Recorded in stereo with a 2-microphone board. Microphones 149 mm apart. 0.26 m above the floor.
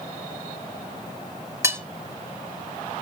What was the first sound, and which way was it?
Cutlery clinking, 20° right (ahead or behind).